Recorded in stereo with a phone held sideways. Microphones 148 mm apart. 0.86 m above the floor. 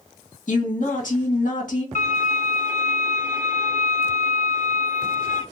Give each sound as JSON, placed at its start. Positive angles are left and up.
{"t": 0.5, "sound": "a woman speaking", "side_deg": 60, "distance_m": 1.7}
{"t": 1.9, "sound": "a violin", "side_deg": 60, "distance_m": 1.7}